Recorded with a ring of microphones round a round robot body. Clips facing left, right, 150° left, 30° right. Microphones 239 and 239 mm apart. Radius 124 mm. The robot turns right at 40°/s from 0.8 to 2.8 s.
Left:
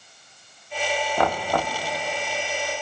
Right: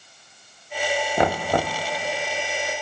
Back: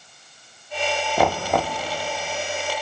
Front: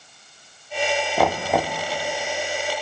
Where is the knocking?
125° right, 0.5 m; by 1.8 s 100° right, 0.5 m.